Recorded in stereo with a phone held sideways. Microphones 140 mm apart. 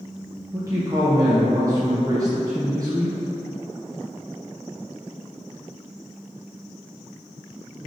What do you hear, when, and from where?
0.5 s a man speaking: 25° right (ahead or behind), 0.5 m